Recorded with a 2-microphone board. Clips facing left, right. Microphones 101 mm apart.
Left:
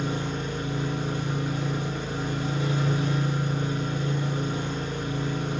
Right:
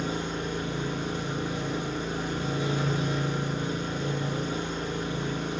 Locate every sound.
0.0 s an engine running: 25° right (ahead or behind), 0.8 m